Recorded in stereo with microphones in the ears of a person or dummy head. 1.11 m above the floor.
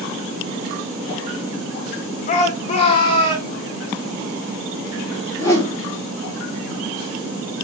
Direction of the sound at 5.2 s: 10° left (ahead or behind).